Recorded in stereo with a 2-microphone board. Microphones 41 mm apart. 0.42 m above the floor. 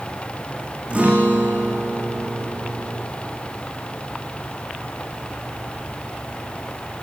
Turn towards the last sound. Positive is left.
turn(degrees=-35)  # may be behind; listen again after turning